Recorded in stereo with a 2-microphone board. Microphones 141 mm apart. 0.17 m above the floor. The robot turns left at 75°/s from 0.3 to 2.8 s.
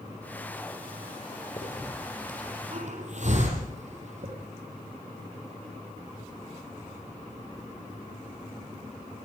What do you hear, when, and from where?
1.6 s a hiss: 35° left (ahead or behind), 6.5 m; by 4.3 s 55° right (ahead or behind), 6.5 m